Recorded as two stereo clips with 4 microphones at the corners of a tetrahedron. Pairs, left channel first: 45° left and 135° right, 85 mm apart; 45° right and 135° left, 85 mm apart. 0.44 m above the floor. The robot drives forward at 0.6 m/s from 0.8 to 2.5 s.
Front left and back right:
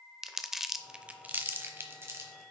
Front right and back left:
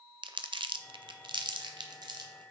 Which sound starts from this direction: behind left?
Crumpling, at 0.2 s.